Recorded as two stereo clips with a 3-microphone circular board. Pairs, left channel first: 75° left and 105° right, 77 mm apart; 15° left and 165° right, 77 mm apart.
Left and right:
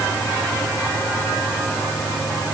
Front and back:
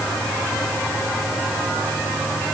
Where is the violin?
I don't hear a violin.